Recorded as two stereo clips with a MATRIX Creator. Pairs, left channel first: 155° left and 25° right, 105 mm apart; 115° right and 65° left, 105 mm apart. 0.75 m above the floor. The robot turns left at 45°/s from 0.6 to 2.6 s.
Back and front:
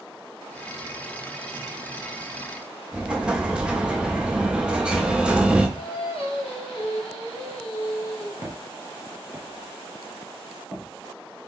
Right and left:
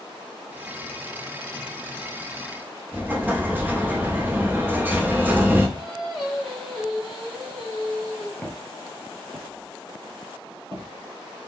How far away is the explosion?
About 0.6 m.